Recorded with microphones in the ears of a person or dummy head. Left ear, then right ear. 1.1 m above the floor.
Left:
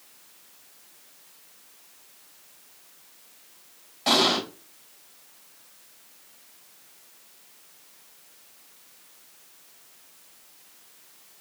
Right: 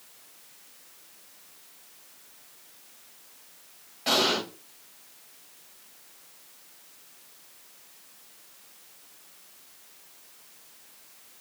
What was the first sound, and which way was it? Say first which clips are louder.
An explosion: left 3 dB; 5° left (ahead or behind).